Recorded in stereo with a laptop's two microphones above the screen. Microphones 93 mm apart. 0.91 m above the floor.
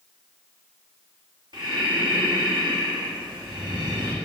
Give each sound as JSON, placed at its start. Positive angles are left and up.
{"t": 1.5, "sound": "breathing", "side_deg": -55, "distance_m": 2.5}